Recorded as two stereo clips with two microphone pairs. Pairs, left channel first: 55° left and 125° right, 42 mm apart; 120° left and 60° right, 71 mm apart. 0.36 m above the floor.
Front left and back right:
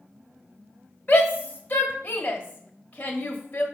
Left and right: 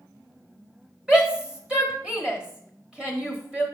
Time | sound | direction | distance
1.1 | a shout | 15° left | 1.3 m